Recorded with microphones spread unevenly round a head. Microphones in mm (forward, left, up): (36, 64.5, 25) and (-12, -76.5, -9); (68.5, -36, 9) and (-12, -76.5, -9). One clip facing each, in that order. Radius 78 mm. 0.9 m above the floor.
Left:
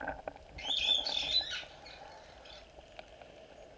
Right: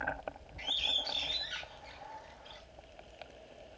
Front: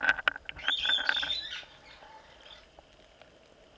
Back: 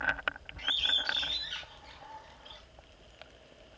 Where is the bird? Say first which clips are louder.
Even, front 3 dB; 130° left, 4 m.